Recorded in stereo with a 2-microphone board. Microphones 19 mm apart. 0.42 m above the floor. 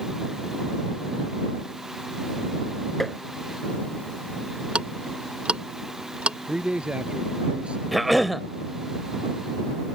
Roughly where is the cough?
Centre.